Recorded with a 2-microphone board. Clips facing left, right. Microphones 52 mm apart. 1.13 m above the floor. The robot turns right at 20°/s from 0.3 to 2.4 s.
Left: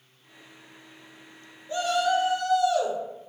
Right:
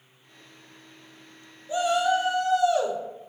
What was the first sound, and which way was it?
A shout, 10° right (ahead or behind).